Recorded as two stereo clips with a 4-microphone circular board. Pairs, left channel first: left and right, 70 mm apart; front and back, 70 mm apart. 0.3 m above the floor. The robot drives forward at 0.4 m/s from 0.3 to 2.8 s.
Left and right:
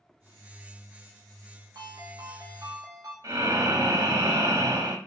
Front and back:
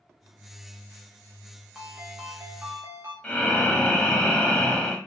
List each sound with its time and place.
1.8 s a ringtone: 100° right, 1.0 m; by 3.1 s 120° right, 1.1 m
3.2 s breathing: 75° right, 0.6 m